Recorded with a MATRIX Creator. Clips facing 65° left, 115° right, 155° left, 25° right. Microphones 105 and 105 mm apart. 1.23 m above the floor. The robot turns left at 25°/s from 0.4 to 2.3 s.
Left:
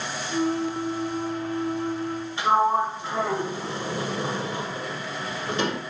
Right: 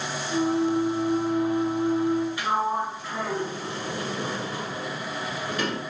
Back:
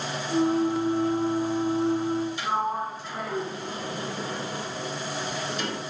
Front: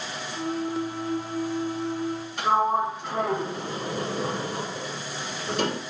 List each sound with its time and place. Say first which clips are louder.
2.4 s a sliding door: left 5 dB, front 5 dB; 5° left, 2 m